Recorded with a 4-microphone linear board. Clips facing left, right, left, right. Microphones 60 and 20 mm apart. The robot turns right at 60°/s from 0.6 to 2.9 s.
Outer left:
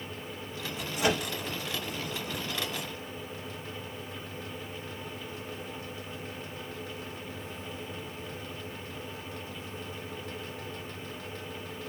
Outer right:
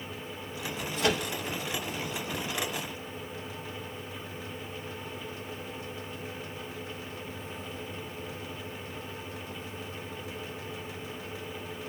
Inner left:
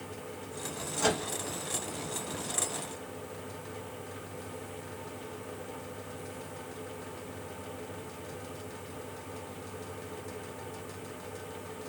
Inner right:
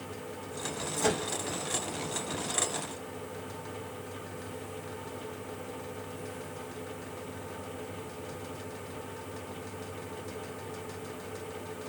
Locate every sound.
1.0 s a microwave: 15° left (ahead or behind), 1.2 m; by 1.2 s 20° left (ahead or behind), 1.2 m